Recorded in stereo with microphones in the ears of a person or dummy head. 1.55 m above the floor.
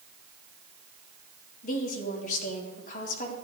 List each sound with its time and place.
1.6 s a woman speaking: 50° left (ahead or behind), 2.5 m